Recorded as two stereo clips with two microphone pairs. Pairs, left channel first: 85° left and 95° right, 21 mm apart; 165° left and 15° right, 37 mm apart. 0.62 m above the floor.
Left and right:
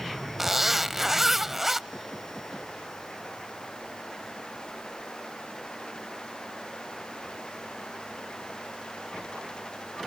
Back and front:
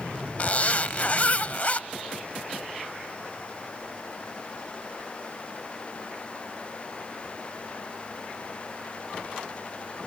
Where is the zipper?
160° right, 0.5 m.